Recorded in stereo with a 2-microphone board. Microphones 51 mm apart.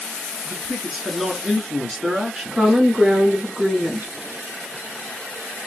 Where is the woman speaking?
20° right (ahead or behind), 1.7 m.